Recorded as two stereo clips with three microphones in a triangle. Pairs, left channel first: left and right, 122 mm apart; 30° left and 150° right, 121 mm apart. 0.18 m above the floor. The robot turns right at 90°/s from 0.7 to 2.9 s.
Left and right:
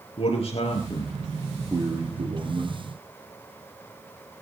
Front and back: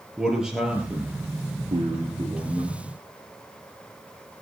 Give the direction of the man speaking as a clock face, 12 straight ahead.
8 o'clock.